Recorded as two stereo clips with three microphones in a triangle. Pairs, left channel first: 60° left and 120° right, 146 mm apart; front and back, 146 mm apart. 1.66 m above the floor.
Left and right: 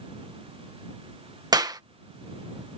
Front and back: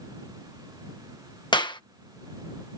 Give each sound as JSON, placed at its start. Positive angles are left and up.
{"t": 1.5, "sound": "a clap", "azimuth_deg": -55}